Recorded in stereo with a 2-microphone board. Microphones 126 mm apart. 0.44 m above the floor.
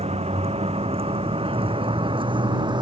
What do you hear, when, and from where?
0.0 s a vehicle: 55° right (ahead or behind); by 2.8 s 35° right (ahead or behind)